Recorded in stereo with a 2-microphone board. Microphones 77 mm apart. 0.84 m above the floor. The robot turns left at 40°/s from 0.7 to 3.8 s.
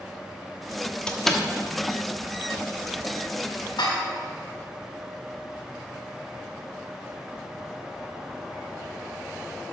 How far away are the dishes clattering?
About 2 m.